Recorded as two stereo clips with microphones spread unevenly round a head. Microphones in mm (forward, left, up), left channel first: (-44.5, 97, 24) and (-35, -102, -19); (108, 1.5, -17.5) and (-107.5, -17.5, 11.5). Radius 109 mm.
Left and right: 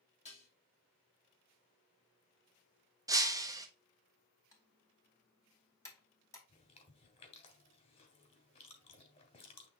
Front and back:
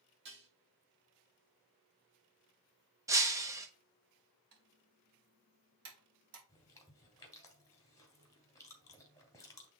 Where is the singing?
No singing in this recording.